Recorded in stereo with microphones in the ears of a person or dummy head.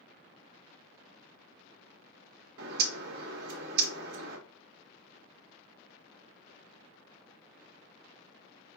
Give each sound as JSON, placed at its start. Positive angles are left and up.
{"t": 2.6, "sound": "a bird", "side_deg": -65, "distance_m": 1.2}